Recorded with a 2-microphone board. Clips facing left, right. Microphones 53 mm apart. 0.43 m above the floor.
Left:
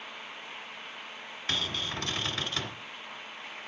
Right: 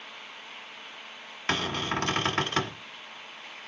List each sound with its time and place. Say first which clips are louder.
1.5 s a cupboard door: right 5 dB; 55° right (ahead or behind), 1.7 m